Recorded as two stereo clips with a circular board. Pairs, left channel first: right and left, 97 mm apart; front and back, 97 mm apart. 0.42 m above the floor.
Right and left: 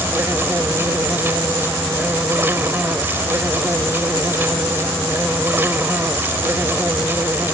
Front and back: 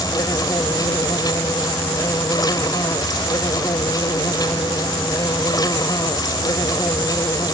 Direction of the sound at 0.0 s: 30° left.